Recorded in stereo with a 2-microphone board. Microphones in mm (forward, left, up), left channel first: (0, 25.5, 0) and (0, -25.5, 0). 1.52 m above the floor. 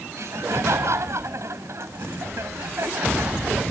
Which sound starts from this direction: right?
Laughter, at 0.1 s.